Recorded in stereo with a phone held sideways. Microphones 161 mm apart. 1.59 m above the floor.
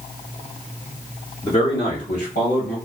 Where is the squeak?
No squeak in this recording.